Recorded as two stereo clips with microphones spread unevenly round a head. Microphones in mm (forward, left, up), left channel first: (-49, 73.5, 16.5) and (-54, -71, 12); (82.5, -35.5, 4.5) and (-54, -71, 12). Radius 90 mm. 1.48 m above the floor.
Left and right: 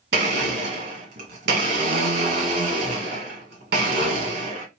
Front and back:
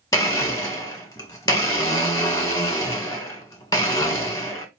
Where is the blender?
55° right, 1.5 m.